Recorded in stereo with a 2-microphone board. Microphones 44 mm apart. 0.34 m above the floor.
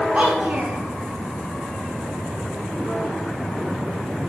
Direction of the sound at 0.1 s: 35° right (ahead or behind).